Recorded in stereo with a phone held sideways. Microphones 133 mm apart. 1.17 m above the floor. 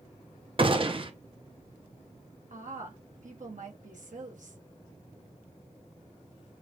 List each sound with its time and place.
0.6 s a gunshot: 40° right (ahead or behind), 0.7 m
2.5 s a woman speaking: 70° right (ahead or behind), 1.3 m